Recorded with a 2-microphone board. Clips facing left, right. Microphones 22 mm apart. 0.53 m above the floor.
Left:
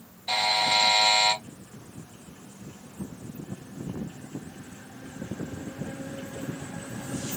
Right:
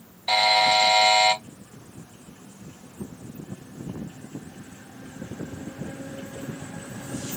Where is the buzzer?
35° right (ahead or behind), 1.6 m.